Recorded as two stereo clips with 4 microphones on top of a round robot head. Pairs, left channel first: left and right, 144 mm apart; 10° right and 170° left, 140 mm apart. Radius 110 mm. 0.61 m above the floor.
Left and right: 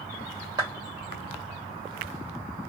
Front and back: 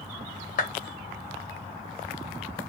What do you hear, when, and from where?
0.6 s a clap: 25° right, 2.5 m